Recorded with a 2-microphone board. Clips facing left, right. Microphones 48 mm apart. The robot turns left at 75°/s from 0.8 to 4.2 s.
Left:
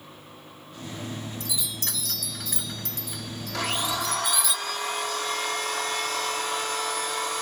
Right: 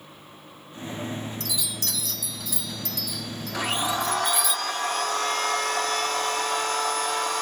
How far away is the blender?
About 1.8 m.